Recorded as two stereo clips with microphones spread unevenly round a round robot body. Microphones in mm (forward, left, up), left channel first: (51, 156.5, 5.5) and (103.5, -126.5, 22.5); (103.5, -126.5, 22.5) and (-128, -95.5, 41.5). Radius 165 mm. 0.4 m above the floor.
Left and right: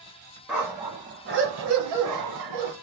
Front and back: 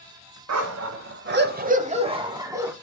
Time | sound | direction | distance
0.5 | a dog barking | 170° right | 1.0 m